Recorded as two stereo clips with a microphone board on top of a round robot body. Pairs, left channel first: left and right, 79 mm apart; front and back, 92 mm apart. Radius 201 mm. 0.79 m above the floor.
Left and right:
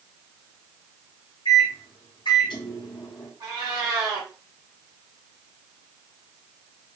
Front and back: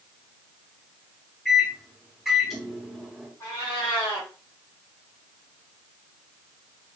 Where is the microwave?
90° left, 1.8 m.